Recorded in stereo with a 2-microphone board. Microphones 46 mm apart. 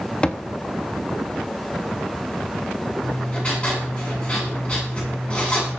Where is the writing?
20° left (ahead or behind), 8.5 m.